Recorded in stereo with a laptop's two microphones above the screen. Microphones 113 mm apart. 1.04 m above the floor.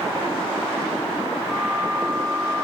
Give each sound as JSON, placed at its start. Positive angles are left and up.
{"t": 1.5, "sound": "a flute", "side_deg": -5, "distance_m": 4.5}